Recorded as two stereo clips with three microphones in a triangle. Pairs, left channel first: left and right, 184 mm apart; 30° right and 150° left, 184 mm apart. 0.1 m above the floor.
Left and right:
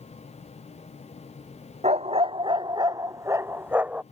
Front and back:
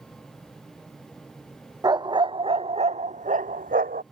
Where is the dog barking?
140° right; by 4.0 s 175° right.